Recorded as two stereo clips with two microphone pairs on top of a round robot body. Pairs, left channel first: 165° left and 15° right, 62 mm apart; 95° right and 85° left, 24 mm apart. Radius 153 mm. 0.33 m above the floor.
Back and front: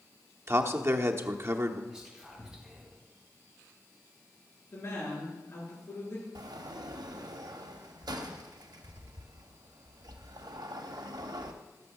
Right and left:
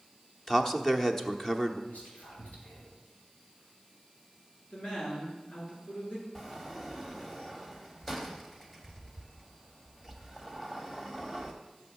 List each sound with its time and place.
0.5 s a man speaking: 25° right, 1.1 m
1.9 s whispering: 95° right, 4.5 m
4.7 s a woman speaking: 150° right, 7 m
6.3 s a sliding door: 15° right, 0.9 m